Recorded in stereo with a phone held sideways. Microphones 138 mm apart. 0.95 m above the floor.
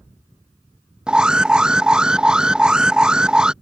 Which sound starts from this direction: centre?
An alarm, at 1.1 s.